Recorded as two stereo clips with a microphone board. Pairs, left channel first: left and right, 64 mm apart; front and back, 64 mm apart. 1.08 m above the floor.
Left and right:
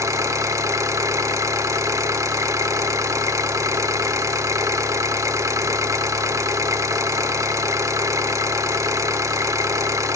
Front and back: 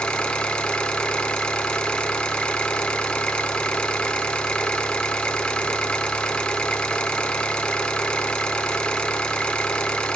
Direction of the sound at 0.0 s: 75° right.